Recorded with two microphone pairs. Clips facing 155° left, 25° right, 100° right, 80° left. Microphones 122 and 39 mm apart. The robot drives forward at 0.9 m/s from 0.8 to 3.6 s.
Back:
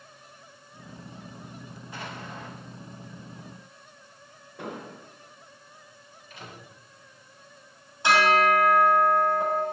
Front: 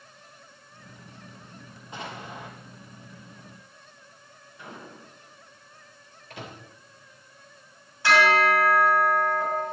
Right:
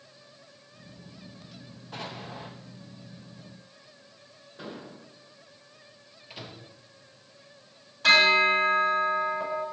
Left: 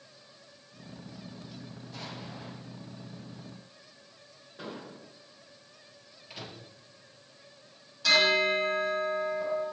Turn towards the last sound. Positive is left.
turn(degrees=-135)